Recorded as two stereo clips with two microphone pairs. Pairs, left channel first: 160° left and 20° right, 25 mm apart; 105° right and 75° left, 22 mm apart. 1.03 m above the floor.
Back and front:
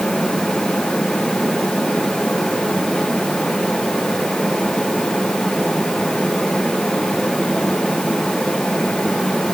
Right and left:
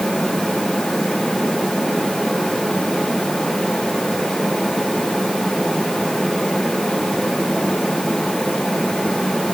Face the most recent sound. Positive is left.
No sound to turn to.